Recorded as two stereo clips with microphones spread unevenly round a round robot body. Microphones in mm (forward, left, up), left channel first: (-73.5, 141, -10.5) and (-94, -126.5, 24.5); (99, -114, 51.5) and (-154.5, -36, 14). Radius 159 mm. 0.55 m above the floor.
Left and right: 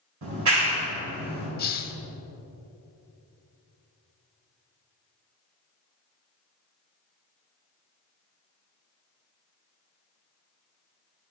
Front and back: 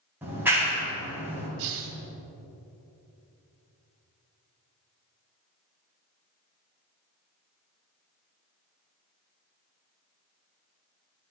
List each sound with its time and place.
0.2 s a clap: 115° right, 3 m
1.6 s a hiss: 145° left, 0.9 m